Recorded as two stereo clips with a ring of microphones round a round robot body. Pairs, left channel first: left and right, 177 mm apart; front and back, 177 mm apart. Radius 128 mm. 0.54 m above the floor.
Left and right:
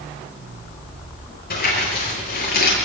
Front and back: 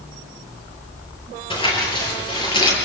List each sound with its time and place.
1.5 s crumpling: 60° left, 10 m